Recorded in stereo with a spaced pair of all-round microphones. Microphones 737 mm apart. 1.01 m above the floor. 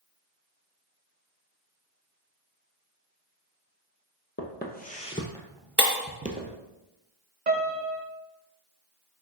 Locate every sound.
4.4 s footsteps: 15° left (ahead or behind), 1.4 m; by 6.5 s 15° right (ahead or behind), 1.3 m
5.8 s breaking glass: 50° right (ahead or behind), 3.5 m
7.5 s a piano: 70° right (ahead or behind), 1.5 m